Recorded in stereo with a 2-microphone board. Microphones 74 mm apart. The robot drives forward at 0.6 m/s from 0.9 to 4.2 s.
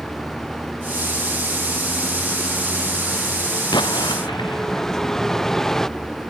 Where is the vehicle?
5° left (ahead or behind).